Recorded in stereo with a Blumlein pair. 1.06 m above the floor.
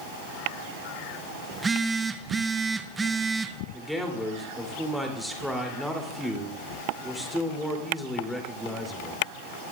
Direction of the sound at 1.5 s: 15° right.